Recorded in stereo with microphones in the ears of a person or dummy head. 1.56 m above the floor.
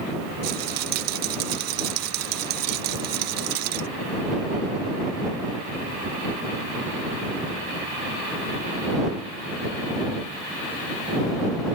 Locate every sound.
0.4 s a rattle: 55° right (ahead or behind)